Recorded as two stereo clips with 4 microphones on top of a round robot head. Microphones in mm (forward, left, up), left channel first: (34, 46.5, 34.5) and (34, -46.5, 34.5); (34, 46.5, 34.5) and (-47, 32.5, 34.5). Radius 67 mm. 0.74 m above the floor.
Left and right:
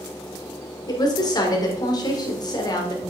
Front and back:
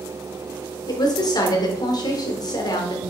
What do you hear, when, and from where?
0.9 s a woman speaking: 45° left, 2 m